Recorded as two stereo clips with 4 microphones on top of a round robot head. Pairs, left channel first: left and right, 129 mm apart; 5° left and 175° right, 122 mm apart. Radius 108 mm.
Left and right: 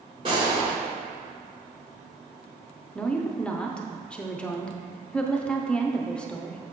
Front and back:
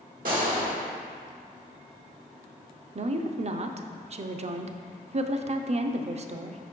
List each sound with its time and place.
0.2 s a gunshot: 155° right, 1.5 m
3.0 s a woman speaking: 170° left, 0.6 m